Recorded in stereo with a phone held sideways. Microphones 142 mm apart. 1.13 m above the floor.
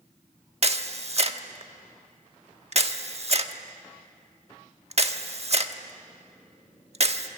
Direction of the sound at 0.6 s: 50° right (ahead or behind).